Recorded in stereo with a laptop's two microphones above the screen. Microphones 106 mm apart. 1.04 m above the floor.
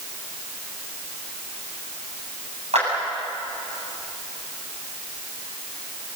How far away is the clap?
About 7.5 m.